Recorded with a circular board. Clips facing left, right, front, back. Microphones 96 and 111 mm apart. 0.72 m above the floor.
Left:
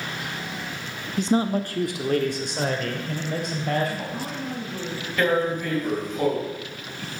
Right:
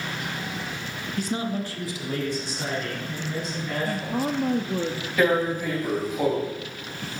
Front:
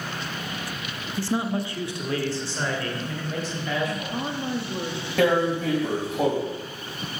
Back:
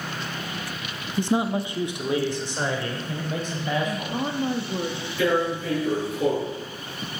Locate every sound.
1.2 s a man speaking: 135° left, 0.7 m; by 4.2 s 105° left, 5 m
3.8 s a woman speaking: 105° right, 1.0 m
5.2 s tearing paper: 10° right, 4 m